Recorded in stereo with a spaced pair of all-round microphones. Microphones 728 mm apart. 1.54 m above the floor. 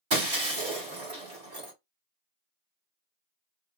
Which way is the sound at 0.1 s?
35° right (ahead or behind).